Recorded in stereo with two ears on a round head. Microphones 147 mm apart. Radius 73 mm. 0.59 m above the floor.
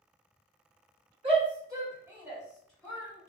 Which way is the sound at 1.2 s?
35° right (ahead or behind).